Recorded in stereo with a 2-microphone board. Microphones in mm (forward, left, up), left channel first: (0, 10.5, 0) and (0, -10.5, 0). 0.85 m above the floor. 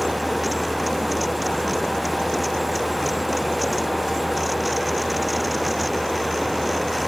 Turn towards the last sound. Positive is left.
No sound to turn to.